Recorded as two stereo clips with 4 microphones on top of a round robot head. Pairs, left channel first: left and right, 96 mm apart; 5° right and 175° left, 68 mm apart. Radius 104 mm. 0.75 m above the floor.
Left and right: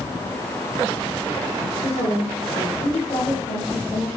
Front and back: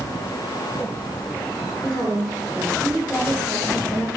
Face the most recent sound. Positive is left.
turn(degrees=40)